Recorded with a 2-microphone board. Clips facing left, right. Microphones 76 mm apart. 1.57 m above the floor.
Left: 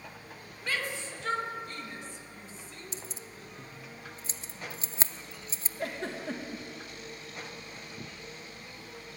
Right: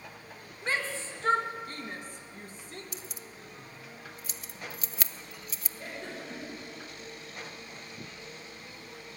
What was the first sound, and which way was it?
A shout, 30° right (ahead or behind).